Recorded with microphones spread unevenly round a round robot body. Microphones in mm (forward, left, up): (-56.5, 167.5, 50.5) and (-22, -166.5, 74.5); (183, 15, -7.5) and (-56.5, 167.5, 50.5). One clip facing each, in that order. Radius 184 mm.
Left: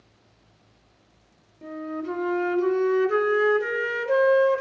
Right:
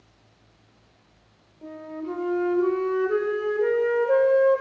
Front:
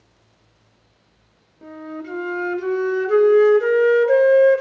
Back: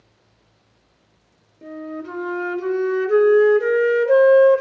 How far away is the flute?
About 2.5 m.